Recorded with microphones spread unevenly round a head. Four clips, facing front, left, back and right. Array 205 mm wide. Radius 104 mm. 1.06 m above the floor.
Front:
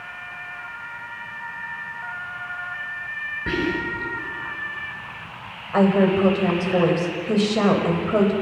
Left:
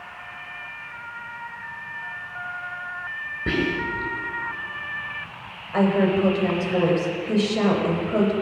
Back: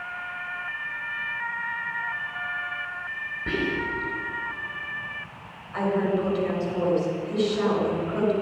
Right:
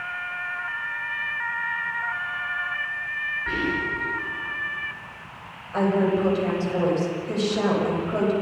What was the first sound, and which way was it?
Whispering, 80° left.